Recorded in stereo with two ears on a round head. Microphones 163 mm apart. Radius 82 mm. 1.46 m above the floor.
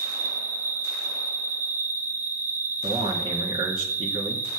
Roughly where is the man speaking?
Right.